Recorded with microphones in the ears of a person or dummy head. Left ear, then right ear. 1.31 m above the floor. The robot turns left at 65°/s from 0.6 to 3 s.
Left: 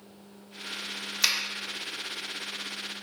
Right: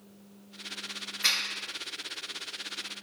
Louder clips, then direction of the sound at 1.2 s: Left 1 dB; 85° left.